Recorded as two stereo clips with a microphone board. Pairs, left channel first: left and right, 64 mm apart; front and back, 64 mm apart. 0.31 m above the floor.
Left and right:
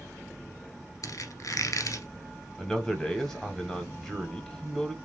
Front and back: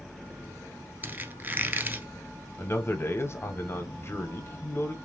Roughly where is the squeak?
Behind left.